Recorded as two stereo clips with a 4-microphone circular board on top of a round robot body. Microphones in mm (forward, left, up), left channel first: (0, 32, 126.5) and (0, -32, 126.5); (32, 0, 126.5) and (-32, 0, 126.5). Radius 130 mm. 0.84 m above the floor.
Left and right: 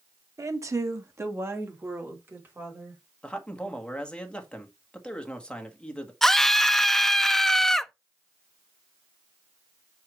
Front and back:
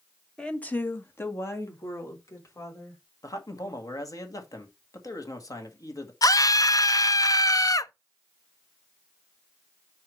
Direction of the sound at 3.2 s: 15° left.